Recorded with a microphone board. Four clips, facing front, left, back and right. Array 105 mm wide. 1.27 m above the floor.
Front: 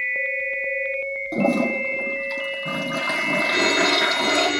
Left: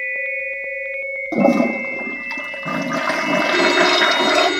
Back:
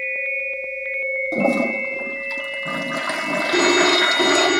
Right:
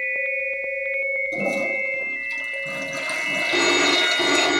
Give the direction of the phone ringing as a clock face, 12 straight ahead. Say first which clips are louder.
Left 3 dB, back 6 dB; 5 o'clock.